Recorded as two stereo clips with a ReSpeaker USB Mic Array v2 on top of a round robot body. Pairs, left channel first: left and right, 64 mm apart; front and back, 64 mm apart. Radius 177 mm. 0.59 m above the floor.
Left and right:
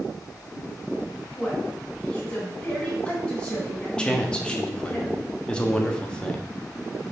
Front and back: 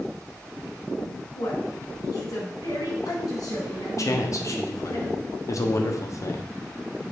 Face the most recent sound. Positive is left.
turn(degrees=20)